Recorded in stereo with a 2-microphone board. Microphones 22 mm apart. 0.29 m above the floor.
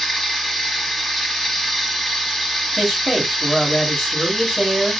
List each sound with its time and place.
0.0 s running water: 15° left (ahead or behind), 0.9 m
2.8 s a man speaking: 20° left (ahead or behind), 1.3 m